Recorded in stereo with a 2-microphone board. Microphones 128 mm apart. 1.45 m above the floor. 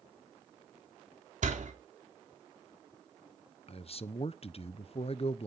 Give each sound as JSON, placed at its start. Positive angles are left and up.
{"t": 1.4, "sound": "a door slam", "side_deg": -75, "distance_m": 3.0}
{"t": 3.7, "sound": "a man speaking", "side_deg": 50, "distance_m": 0.8}